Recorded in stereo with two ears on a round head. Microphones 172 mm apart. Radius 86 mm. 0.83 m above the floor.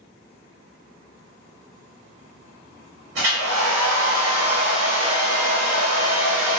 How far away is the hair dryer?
About 1.5 m.